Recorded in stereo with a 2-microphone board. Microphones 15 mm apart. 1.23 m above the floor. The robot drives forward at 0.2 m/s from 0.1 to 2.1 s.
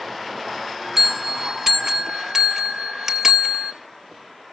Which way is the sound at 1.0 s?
20° right (ahead or behind).